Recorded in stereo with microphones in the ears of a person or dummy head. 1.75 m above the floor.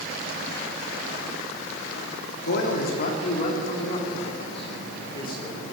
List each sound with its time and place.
2.4 s a man speaking: 65° left (ahead or behind), 4 m; by 5.7 s 30° left (ahead or behind), 5.5 m